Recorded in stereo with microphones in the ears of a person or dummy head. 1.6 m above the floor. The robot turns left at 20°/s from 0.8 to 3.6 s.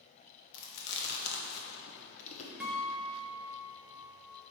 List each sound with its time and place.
0.5 s chewing: 75° left (ahead or behind), 1.2 m; by 2.5 s 45° left (ahead or behind), 1.2 m
2.6 s a guitar: 10° right (ahead or behind), 1.0 m; by 4.4 s 10° left (ahead or behind), 1.0 m